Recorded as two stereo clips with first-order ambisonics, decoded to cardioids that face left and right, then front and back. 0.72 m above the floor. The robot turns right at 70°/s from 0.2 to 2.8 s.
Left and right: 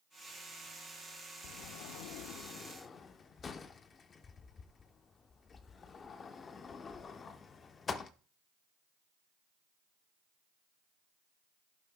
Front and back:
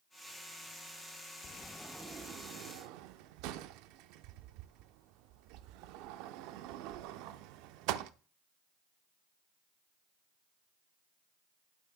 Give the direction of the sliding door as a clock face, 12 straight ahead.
10 o'clock.